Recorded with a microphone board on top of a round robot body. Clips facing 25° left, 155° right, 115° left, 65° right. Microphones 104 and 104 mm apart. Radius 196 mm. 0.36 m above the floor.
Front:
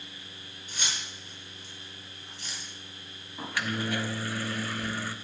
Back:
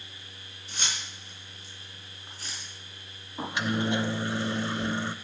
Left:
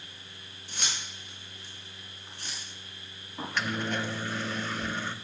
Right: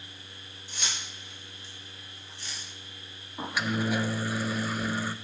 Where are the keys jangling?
140° left, 6 m; by 2.7 s 150° left, 4.5 m.